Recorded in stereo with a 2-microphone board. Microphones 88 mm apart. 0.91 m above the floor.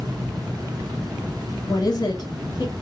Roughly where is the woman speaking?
Left.